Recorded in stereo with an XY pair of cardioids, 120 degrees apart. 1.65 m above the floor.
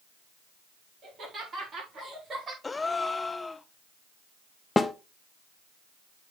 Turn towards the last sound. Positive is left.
turn(degrees=15)